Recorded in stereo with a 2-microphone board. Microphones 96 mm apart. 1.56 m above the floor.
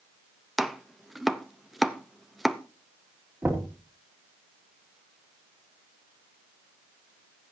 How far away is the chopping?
About 0.7 m.